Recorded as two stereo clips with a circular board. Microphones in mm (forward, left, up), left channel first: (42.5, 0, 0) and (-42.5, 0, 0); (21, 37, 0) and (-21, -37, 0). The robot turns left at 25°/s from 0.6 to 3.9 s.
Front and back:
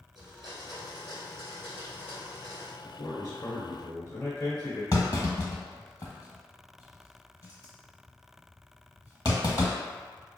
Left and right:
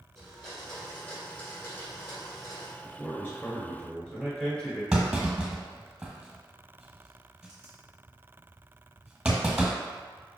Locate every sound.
0.1 s a blender: 145° left, 1.7 m; by 2.7 s 95° left, 1.7 m
2.8 s a man speaking: 15° left, 1.4 m; by 4.8 s 10° right, 1.4 m
4.9 s a clunk: 40° right, 1.1 m